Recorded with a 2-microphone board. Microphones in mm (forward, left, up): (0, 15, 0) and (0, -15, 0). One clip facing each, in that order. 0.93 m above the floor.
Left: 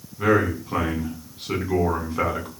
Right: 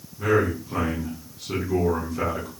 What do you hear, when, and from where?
0.2 s a man speaking: 40° left (ahead or behind), 8 m